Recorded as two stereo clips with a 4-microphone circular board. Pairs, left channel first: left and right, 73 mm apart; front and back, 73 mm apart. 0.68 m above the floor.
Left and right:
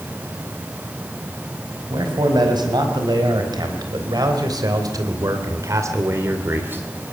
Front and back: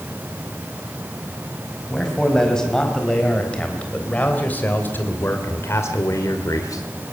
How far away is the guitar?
I don't hear a guitar.